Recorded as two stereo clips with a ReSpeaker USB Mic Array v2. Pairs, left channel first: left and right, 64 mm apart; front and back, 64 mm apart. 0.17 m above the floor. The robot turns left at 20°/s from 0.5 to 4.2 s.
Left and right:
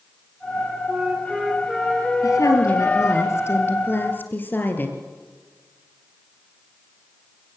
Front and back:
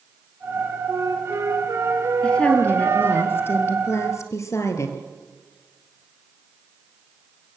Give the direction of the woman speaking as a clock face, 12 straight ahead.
10 o'clock.